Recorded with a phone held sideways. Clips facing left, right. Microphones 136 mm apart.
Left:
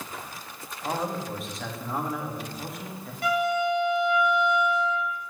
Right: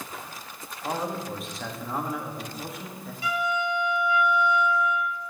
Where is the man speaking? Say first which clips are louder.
Even; centre (ahead or behind), 1.3 m.